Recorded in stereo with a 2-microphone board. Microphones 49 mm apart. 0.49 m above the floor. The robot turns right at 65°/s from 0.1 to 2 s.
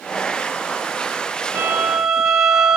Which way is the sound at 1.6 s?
45° right (ahead or behind).